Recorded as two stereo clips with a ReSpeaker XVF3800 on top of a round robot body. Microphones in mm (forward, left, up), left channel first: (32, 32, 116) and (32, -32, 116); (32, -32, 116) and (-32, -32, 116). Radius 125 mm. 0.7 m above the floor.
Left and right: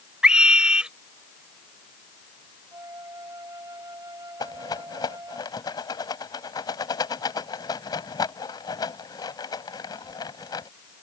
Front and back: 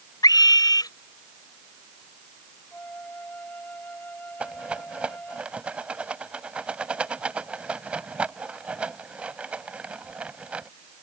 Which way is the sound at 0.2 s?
15° right.